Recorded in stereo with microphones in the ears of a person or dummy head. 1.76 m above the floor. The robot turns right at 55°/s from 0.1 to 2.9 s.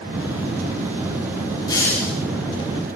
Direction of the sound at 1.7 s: 25° left (ahead or behind).